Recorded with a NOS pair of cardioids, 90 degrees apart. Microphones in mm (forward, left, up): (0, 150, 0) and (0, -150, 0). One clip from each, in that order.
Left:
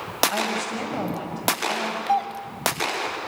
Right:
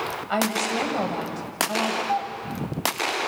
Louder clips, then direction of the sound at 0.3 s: Right 2 dB; 20° right.